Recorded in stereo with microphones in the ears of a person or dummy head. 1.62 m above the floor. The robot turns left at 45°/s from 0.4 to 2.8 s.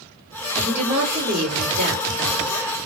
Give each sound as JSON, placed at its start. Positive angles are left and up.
{"t": 0.6, "sound": "a woman speaking", "azimuth_deg": -5, "distance_m": 2.5}